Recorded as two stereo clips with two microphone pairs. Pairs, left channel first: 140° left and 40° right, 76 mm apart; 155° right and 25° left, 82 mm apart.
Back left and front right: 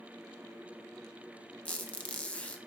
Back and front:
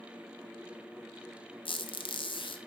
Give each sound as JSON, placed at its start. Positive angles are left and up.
{"t": 1.6, "sound": "a squeak", "azimuth_deg": -145, "distance_m": 0.8}